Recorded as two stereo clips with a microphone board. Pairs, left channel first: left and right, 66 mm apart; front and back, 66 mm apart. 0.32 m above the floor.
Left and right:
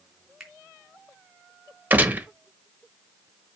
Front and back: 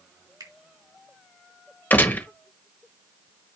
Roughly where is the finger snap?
Behind.